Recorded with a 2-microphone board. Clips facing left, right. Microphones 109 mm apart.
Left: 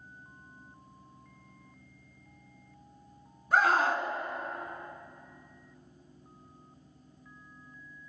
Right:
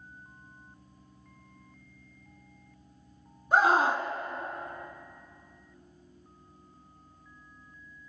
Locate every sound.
3.5 s a scream: 20° right (ahead or behind), 1.4 m